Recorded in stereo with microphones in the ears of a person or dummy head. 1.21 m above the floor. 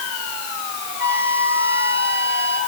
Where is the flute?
75° right (ahead or behind), 3 m.